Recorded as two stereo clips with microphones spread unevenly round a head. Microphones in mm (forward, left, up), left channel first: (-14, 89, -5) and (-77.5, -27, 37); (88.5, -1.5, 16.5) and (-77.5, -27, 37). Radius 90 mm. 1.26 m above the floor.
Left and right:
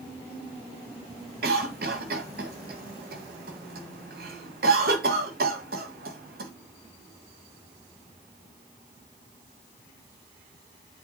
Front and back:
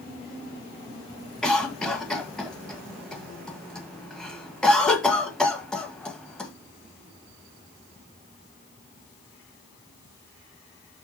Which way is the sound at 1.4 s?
75° right.